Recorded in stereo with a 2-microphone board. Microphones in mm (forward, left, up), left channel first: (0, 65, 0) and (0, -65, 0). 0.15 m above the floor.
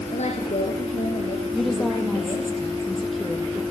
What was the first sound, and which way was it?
A woman speaking, 60° left (ahead or behind).